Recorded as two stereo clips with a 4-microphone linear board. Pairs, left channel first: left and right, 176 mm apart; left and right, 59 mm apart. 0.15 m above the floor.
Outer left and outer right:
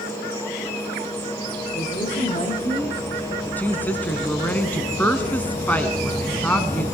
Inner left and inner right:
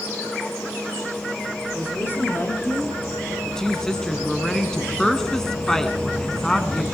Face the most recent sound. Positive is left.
turn(degrees=10)  # may be behind; listen again after turning